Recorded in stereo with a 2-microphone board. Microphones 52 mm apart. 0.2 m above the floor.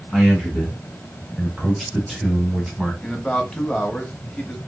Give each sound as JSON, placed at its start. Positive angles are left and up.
{"t": 0.1, "sound": "a man speaking", "side_deg": 5, "distance_m": 2.0}
{"t": 3.0, "sound": "a man speaking", "side_deg": 15, "distance_m": 1.1}